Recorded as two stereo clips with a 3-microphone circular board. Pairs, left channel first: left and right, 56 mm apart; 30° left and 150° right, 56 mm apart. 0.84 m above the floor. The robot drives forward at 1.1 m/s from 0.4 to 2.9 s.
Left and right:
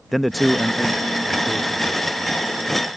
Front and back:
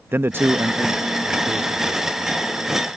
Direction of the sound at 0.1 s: Straight behind.